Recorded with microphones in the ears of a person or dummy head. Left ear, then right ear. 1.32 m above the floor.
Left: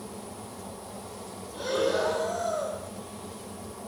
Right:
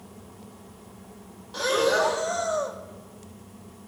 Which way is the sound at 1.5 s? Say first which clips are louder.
Right 4 dB; 65° right (ahead or behind).